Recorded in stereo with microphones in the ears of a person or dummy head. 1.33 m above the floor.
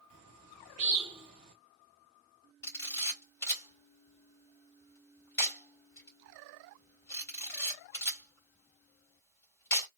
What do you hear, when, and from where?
0.1 s a bird: 35° right (ahead or behind), 1.1 m
2.6 s a camera shutter: 20° left (ahead or behind), 2 m